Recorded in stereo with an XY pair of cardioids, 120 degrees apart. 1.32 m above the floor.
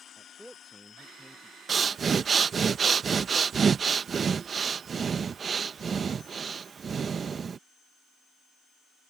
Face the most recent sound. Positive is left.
turn(degrees=-35)